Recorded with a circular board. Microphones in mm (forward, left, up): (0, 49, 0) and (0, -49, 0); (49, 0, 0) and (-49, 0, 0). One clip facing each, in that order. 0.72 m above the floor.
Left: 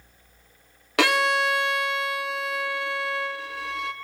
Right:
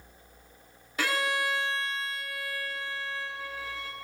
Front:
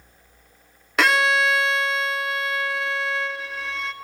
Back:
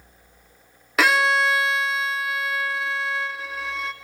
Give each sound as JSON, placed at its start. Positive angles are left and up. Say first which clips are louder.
{"t": 1.0, "sound": "a violin", "louder": "left 8 dB, even", "azimuth_deg": 90, "distance_m": 0.6}